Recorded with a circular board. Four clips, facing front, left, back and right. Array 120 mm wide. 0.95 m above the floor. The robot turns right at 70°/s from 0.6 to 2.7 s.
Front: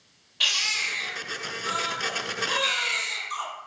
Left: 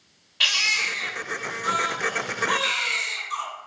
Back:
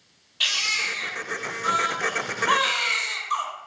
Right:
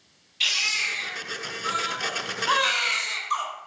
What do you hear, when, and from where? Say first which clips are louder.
0.4 s a baby crying: left 4 dB, back 2 dB; 75° left, 3.5 m; by 3.4 s 140° right, 3.5 m